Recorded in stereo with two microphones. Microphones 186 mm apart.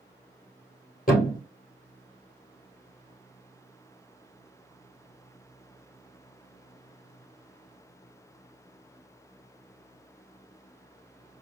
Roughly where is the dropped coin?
No dropped coin in this recording.